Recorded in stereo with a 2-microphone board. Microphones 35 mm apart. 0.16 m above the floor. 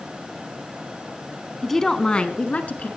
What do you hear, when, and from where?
1.6 s a woman speaking: 5° left (ahead or behind), 1.1 m; by 2.9 s 45° left (ahead or behind), 1.7 m